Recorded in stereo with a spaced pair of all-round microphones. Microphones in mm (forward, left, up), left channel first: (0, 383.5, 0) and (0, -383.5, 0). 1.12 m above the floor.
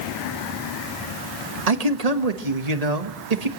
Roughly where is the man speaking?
Right.